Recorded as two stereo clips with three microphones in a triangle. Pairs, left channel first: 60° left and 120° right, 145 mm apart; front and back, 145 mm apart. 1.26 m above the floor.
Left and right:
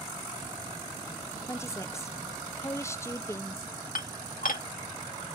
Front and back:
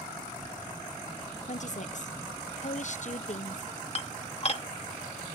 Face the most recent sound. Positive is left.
turn(degrees=45)